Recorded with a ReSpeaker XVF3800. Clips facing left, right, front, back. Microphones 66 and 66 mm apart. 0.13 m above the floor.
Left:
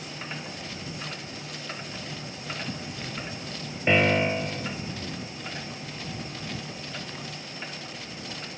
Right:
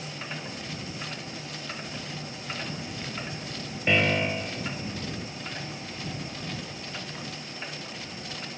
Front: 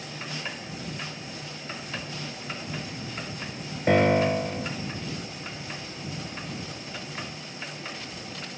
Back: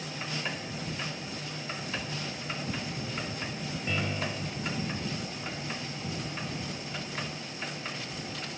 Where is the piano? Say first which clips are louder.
Left 3 dB, front 14 dB; 15° left.